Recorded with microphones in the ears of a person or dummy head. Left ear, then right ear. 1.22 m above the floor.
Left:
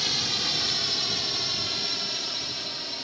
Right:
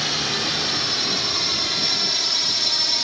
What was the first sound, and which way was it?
A drone, centre (ahead or behind).